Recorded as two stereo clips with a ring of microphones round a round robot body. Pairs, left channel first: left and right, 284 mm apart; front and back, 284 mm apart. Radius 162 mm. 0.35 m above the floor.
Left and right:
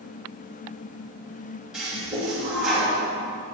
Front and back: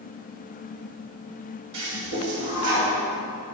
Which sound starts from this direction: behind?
A toilet flushing, at 1.7 s.